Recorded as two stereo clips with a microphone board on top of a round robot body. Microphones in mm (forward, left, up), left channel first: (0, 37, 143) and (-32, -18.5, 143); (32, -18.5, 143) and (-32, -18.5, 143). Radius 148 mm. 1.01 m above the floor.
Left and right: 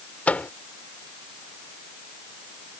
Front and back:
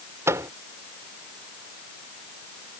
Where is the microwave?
130° left.